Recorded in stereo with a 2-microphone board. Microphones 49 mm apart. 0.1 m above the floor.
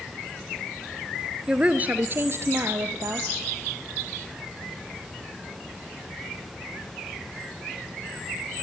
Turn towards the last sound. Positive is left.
turn(degrees=-60)  # may be behind; listen again after turning